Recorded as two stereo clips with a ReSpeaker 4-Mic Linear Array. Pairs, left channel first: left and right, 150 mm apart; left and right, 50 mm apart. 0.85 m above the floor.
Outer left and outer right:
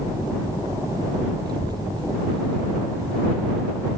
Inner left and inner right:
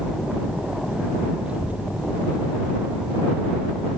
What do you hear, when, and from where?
1.5 s a child speaking: 30° right (ahead or behind); by 3.9 s 40° right (ahead or behind)